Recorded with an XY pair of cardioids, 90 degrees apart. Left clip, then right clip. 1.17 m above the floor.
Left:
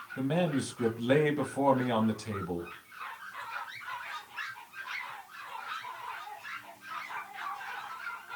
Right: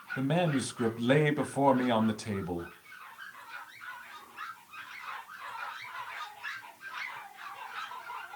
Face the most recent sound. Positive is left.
turn(degrees=-35)